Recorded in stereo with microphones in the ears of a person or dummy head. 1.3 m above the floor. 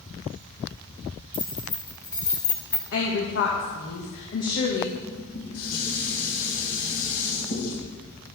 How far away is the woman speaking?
About 1.9 m.